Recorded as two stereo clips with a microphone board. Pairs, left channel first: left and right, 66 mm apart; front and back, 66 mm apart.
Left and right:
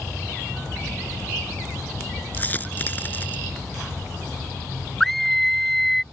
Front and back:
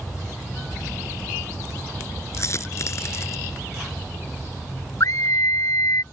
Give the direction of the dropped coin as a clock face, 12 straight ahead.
11 o'clock.